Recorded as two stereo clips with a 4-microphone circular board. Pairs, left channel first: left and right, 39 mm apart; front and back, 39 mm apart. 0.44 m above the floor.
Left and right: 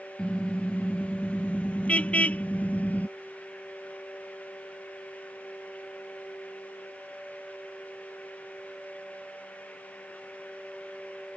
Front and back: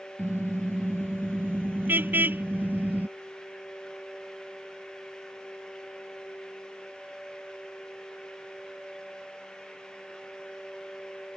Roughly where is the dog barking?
I don't hear a dog barking.